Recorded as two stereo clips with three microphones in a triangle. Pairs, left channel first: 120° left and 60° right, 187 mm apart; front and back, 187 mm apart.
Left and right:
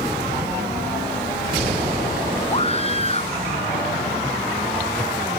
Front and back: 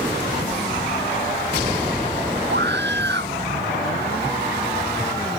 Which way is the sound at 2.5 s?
175° left.